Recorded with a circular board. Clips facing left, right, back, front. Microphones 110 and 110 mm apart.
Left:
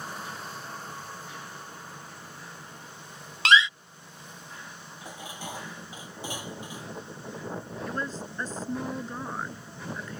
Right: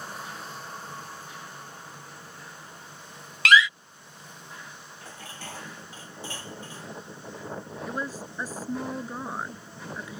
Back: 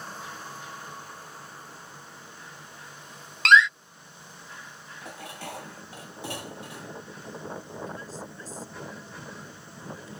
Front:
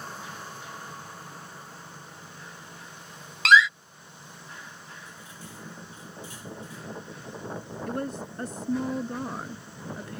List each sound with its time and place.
3.5 s a door slam: 85° left
5.0 s dishes clattering: 165° left
7.9 s a woman speaking: 10° right